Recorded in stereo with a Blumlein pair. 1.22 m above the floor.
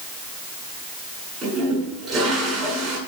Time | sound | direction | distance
1.4 | a toilet flushing | 25° right | 8 m